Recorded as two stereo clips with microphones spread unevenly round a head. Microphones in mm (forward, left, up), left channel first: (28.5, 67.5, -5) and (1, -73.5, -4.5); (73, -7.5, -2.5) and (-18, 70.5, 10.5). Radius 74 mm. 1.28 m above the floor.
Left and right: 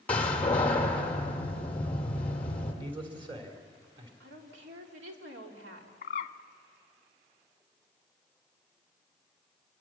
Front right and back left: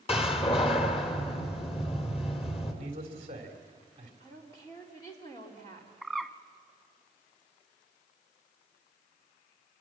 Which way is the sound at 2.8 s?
160° right.